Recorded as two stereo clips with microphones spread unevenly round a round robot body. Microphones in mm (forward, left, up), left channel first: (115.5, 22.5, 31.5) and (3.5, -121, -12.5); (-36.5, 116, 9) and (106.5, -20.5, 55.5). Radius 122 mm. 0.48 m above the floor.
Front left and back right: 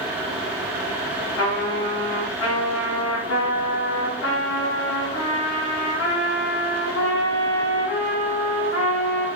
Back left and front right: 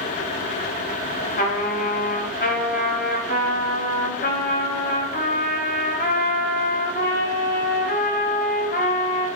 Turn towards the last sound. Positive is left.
turn(degrees=95)